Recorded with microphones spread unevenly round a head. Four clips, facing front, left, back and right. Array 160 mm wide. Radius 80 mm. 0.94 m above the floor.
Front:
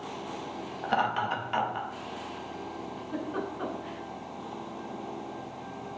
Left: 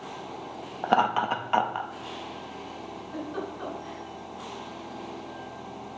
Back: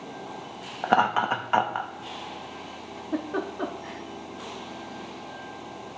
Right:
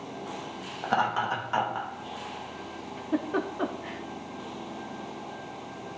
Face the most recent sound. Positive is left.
turn(degrees=-125)